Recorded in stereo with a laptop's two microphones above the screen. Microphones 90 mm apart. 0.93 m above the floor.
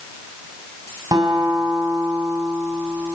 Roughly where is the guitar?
Right.